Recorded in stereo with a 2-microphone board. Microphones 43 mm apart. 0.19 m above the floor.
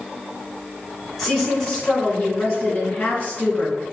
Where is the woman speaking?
5° left (ahead or behind), 1.4 m; by 3.8 s 35° left (ahead or behind), 2.5 m.